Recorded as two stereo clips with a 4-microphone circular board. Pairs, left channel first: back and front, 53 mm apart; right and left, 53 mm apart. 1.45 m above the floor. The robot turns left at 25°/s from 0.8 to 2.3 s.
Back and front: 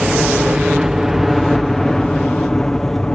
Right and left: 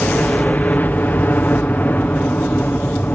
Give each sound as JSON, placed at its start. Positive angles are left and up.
{"t": 0.0, "sound": "a helicopter", "azimuth_deg": -75}